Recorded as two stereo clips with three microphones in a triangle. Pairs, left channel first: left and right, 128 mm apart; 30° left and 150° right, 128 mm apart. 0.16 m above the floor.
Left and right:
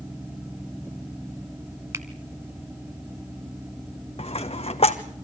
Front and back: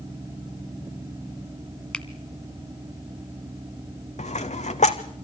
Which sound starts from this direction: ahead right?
A finger snap, at 1.9 s.